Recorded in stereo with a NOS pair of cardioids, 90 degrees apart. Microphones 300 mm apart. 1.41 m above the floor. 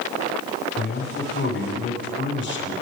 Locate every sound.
0.8 s a man speaking: 40° left, 6.5 m